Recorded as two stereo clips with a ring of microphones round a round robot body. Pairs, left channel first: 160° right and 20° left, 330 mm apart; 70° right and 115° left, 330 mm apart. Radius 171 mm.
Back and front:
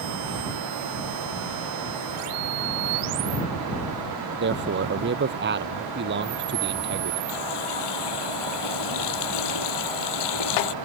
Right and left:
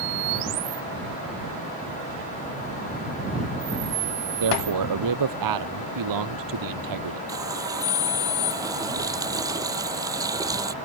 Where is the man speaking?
80° left.